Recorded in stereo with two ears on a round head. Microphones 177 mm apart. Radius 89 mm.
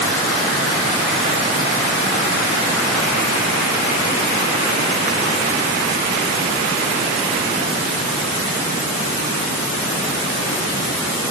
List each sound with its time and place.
Only background noise.